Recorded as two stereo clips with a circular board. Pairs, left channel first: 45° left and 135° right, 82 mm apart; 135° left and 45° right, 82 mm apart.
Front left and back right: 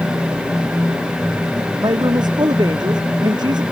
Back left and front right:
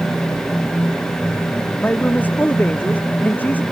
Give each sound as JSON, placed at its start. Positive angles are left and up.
{"t": 1.8, "sound": "a man speaking", "azimuth_deg": -160}